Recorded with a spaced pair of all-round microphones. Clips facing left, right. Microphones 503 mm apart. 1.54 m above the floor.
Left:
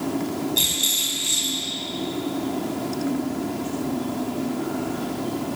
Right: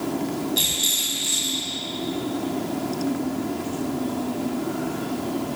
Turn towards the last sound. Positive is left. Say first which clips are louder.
# even
turn(degrees=-20)  # may be behind; listen again after turning